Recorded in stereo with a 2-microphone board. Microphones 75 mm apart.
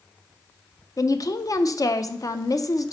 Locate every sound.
1.0 s a woman speaking: 50° left (ahead or behind), 0.5 m